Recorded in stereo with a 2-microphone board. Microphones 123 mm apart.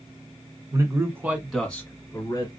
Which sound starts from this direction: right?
A man speaking, at 0.7 s.